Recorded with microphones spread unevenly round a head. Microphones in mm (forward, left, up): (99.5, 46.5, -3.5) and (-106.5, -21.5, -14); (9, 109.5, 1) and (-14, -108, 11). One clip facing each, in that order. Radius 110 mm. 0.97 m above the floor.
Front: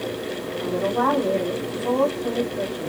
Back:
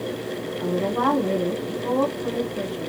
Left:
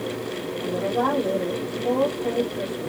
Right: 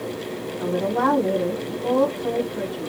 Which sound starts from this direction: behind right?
A woman speaking, at 0.6 s.